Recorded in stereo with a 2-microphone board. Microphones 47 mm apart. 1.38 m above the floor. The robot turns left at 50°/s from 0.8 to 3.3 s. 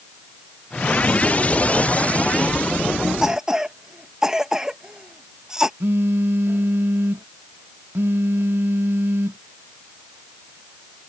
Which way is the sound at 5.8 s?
65° right (ahead or behind).